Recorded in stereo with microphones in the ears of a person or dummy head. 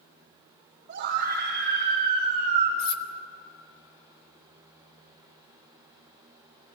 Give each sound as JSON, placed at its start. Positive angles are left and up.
{"t": 0.9, "sound": "a scream", "side_deg": -45, "distance_m": 3.5}
{"t": 2.8, "sound": "cutlery clinking", "side_deg": 70, "distance_m": 1.4}